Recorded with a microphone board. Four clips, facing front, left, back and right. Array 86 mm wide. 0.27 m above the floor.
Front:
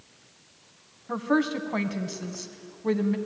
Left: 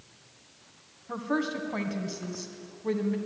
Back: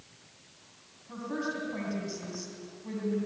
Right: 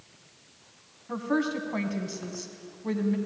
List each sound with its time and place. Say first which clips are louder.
1.1 s a woman speaking: right 2 dB, front 10 dB; 5° left, 2.5 m